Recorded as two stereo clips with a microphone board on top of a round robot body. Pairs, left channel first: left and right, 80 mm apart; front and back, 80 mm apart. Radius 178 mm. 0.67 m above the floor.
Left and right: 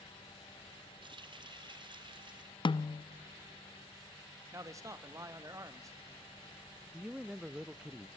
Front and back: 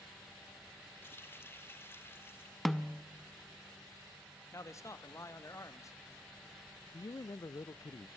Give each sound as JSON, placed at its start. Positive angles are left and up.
{"t": 1.0, "sound": "a running tap", "azimuth_deg": -65, "distance_m": 1.9}
{"t": 2.6, "sound": "a snare drum", "azimuth_deg": 85, "distance_m": 0.6}
{"t": 4.5, "sound": "a man speaking", "azimuth_deg": -45, "distance_m": 1.7}
{"t": 6.9, "sound": "a man speaking", "azimuth_deg": -15, "distance_m": 0.6}